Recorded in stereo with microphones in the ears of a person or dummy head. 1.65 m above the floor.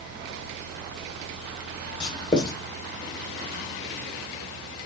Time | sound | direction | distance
2.0 | writing | 30° left (ahead or behind) | 2.5 m